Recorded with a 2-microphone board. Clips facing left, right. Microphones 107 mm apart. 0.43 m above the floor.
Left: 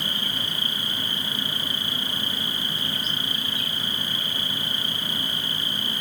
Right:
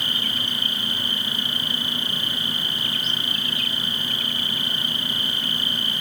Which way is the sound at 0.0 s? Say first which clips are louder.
Right 1 dB; 65° right (ahead or behind).